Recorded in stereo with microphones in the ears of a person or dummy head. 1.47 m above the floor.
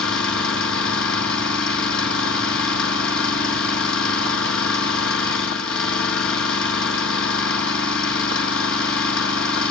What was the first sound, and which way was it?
An engine running, 65° left (ahead or behind).